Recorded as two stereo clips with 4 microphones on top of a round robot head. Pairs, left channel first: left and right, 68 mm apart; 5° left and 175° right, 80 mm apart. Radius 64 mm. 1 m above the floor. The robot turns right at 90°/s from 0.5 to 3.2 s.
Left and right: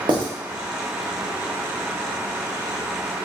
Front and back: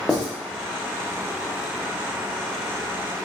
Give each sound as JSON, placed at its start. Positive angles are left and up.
{"t": 0.1, "sound": "writing", "azimuth_deg": -95, "distance_m": 0.8}